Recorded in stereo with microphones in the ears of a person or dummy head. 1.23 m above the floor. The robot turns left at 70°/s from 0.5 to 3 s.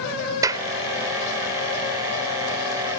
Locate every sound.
0.4 s a clap: 20° right (ahead or behind); by 0.7 s 30° right (ahead or behind)